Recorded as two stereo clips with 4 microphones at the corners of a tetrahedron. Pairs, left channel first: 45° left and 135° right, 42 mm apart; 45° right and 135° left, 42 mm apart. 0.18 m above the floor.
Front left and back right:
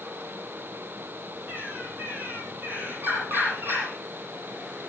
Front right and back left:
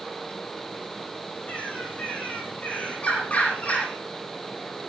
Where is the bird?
100° right, 5 m.